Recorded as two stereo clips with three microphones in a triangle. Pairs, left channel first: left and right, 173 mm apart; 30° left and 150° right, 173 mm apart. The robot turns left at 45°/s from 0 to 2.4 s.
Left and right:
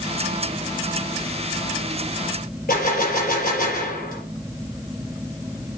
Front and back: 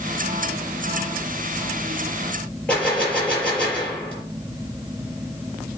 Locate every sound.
2.7 s a gunshot: 115° left, 5 m